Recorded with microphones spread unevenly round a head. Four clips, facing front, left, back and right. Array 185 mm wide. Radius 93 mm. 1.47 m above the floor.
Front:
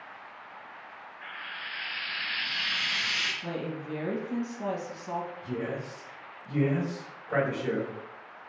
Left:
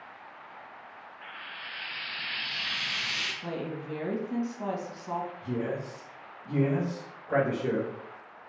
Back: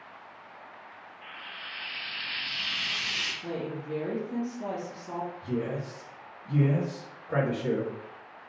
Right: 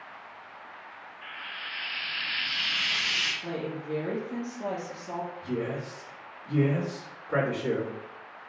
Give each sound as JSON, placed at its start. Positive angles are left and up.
{"t": 1.2, "sound": "frying", "azimuth_deg": 20, "distance_m": 1.3}
{"t": 3.4, "sound": "a woman speaking", "azimuth_deg": 50, "distance_m": 1.1}
{"t": 5.4, "sound": "a man speaking", "azimuth_deg": 70, "distance_m": 1.2}